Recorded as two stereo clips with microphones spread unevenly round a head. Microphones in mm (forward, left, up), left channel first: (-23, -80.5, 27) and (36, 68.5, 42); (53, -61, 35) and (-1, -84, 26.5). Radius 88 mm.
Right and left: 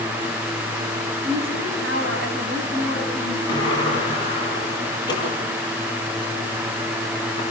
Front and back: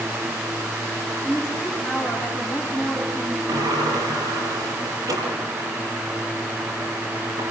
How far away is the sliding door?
About 8 m.